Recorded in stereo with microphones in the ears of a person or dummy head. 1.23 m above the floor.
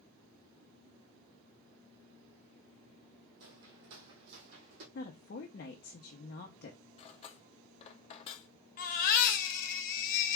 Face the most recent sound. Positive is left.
turn(degrees=45)  # may be behind; listen again after turning